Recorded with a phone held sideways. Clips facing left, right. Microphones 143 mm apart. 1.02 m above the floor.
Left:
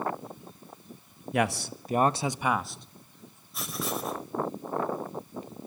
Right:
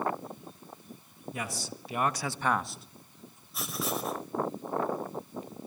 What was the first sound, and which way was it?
A man speaking, 70° left (ahead or behind).